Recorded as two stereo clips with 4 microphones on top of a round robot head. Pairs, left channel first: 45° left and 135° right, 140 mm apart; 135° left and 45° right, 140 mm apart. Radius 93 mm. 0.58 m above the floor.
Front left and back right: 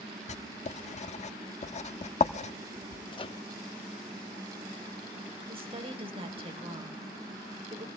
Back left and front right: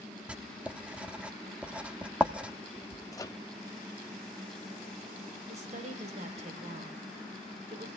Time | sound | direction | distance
0.3 | writing | 35° left | 0.9 m
3.1 | a microwave | 80° left | 0.9 m
5.5 | a woman speaking | 85° right | 3.5 m